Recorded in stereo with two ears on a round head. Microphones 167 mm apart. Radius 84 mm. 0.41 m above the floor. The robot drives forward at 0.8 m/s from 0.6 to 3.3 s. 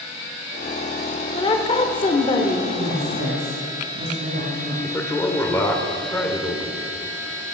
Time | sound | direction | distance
1.4 | a woman speaking | 25° left (ahead or behind) | 1.0 m
2.8 | a woman speaking | 70° right (ahead or behind) | 2.5 m
4.8 | a man speaking | 15° left (ahead or behind) | 1.4 m